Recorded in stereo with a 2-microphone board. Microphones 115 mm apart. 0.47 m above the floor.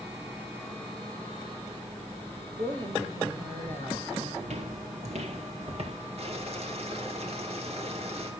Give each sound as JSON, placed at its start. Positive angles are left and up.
{"t": 2.6, "sound": "a woman speaking", "side_deg": -45, "distance_m": 2.0}
{"t": 4.4, "sound": "footsteps", "side_deg": -75, "distance_m": 2.0}
{"t": 6.2, "sound": "boiling", "side_deg": -65, "distance_m": 3.5}